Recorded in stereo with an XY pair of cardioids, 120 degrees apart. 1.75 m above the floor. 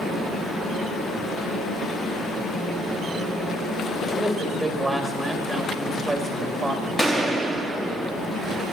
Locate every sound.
0.0 s a fan: 10° left, 8.5 m
4.1 s a man speaking: straight ahead, 3 m
7.0 s a gunshot: 10° left, 2 m